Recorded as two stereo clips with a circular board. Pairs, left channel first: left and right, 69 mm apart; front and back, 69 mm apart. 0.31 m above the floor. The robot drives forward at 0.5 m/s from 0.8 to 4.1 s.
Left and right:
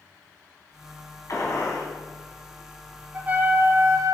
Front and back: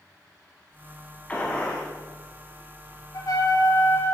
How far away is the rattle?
I don't hear a rattle.